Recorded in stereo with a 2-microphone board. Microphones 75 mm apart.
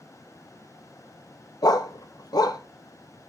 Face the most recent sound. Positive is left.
turn(degrees=65)  # may be behind; listen again after turning